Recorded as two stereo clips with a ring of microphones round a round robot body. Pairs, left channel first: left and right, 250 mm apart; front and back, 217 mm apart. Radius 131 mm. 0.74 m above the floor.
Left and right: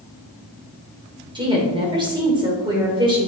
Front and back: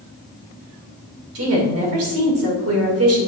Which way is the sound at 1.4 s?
160° right.